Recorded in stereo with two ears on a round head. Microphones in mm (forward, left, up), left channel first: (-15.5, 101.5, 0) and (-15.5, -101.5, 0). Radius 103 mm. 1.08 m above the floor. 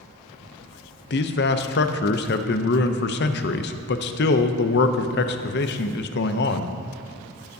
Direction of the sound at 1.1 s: 45° left (ahead or behind).